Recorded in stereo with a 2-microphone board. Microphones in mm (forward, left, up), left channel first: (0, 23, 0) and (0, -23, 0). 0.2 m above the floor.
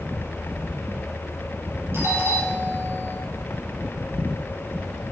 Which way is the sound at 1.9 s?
65° right (ahead or behind).